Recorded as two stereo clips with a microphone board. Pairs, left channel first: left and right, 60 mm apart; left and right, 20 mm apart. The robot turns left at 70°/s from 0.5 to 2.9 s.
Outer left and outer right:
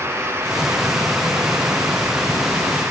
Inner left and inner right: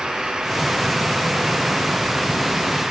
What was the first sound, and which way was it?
Only background noise.